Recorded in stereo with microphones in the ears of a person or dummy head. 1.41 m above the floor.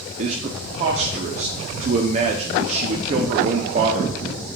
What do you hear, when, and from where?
0.2 s a man speaking: 35° right (ahead or behind), 0.5 m